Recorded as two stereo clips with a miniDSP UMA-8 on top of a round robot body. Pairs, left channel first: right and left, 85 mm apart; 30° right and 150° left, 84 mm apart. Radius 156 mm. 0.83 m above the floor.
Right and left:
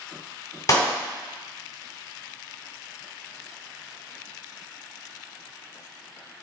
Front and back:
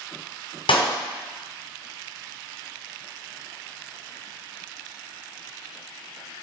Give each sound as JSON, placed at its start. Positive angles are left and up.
{"t": 0.7, "sound": "a clap", "azimuth_deg": -40, "distance_m": 1.9}